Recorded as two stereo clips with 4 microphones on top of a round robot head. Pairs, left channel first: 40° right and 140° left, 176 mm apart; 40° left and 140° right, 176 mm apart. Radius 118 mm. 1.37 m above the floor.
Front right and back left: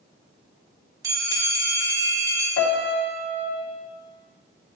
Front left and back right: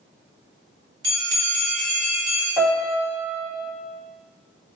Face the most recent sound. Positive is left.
turn(degrees=-60)